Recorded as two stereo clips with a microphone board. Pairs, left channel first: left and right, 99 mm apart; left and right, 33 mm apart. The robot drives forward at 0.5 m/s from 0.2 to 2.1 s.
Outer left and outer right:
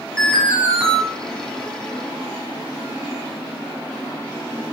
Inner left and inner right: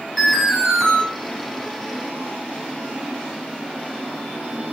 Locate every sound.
0.2 s an alarm: 5° left (ahead or behind), 4 m; by 1.0 s 10° left (ahead or behind), 4 m